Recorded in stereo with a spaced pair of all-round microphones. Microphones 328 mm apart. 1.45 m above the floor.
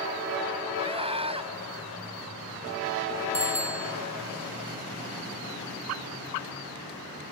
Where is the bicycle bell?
15° right (ahead or behind).